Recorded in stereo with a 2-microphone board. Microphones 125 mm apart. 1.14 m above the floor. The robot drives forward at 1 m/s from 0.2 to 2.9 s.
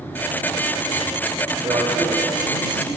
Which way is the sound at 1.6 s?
40° right (ahead or behind).